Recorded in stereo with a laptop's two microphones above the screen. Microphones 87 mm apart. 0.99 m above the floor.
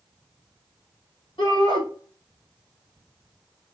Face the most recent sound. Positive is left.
turn(degrees=75)  # may be behind; listen again after turning